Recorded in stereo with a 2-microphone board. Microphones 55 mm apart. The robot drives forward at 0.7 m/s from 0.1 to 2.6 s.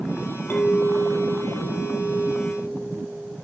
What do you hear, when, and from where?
0.5 s a clink: 40° left (ahead or behind), 3.5 m; by 3.4 s 30° left (ahead or behind), 4.5 m